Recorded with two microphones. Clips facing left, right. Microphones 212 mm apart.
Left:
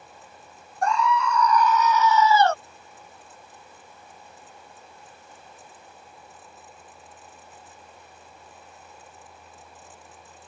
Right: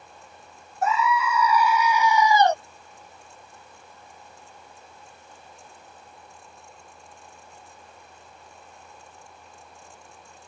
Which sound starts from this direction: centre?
A scream, at 0.8 s.